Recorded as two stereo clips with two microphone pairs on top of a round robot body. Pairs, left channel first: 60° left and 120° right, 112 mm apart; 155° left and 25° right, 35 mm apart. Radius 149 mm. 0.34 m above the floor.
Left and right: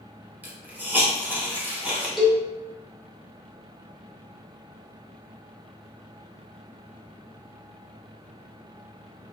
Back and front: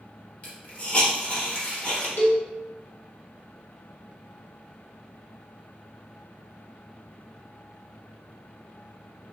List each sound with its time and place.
0.4 s a hiss: 175° left, 1.1 m
2.2 s a cowbell: 150° left, 1.0 m